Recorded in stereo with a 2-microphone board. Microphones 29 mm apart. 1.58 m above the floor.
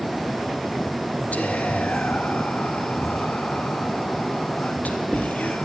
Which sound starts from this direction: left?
Whispering, at 1.3 s.